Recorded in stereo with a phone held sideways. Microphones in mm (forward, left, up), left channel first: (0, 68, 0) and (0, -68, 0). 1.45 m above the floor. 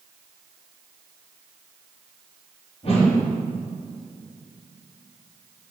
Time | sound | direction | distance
2.8 | a whoosh | 50° left (ahead or behind) | 3.5 m